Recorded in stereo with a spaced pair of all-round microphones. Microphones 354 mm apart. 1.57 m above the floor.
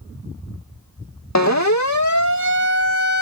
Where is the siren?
50° left (ahead or behind); by 3.2 s 55° left (ahead or behind).